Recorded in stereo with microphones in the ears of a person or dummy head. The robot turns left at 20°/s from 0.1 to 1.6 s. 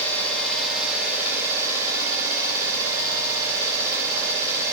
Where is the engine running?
10° left, 3.5 m; by 4.7 s 20° right, 3.5 m.